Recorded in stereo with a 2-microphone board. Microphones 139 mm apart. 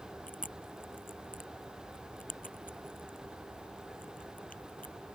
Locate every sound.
0.3 s chewing: 75° left (ahead or behind)